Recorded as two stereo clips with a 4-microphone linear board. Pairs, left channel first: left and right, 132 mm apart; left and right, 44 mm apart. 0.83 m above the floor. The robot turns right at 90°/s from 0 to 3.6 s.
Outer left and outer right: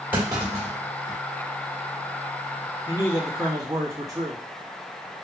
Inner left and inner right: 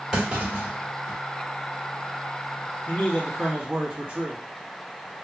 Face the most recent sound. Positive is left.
turn(degrees=-150)